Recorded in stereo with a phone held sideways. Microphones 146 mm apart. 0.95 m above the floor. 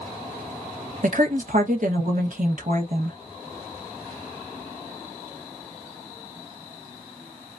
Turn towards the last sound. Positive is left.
turn(degrees=-65)  # may be behind; listen again after turning